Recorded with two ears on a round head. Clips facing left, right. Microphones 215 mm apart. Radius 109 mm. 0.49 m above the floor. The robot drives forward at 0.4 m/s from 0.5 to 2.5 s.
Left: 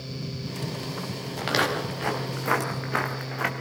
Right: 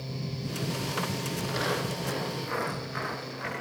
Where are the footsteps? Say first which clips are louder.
Left 5 dB; 80° left, 6 m; by 3.5 s 75° left (ahead or behind), 4.5 m.